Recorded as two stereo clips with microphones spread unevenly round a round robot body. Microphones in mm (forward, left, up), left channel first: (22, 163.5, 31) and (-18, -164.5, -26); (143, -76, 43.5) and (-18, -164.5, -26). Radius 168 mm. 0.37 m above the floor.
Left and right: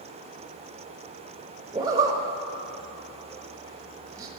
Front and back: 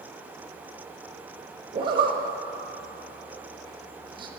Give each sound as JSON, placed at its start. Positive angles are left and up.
{"t": 1.7, "sound": "a zipper", "azimuth_deg": -160, "distance_m": 0.8}